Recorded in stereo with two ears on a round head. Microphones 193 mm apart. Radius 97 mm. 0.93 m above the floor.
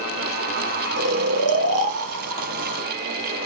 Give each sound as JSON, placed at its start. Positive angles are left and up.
{"t": 1.0, "sound": "snoring", "side_deg": -70, "distance_m": 0.6}